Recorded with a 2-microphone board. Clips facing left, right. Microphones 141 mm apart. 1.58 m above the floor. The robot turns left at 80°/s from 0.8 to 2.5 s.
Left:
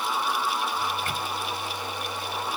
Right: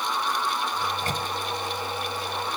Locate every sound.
0.8 s a microwave: 20° right (ahead or behind); by 1.3 s 60° right (ahead or behind)